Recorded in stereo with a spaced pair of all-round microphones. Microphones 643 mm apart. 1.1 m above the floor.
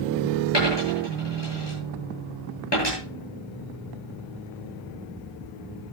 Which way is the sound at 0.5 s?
40° left (ahead or behind).